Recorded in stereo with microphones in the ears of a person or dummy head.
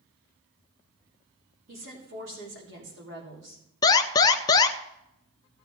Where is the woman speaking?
70° right (ahead or behind), 3.5 m.